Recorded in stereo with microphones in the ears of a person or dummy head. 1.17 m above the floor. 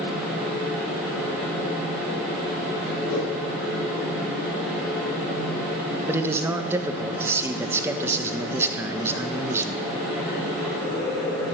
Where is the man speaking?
10° right (ahead or behind), 0.9 m.